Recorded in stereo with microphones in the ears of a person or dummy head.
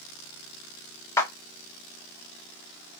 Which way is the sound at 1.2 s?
15° left (ahead or behind).